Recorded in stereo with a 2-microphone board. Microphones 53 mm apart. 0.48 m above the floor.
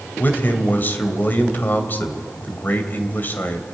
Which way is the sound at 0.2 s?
35° left (ahead or behind).